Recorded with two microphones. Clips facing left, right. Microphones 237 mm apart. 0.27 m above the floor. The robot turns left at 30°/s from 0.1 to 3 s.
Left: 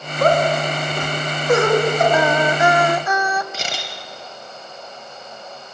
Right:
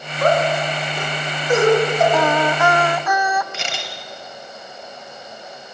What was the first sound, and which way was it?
Laughter, 45° left (ahead or behind).